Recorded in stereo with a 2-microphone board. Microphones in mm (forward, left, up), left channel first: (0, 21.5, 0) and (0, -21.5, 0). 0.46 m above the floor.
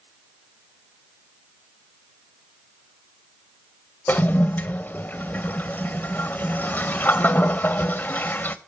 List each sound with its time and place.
4.1 s a toilet flushing: 45° left (ahead or behind), 0.6 m